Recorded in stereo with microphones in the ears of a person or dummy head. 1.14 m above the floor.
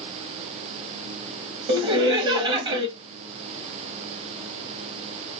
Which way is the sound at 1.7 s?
30° right (ahead or behind).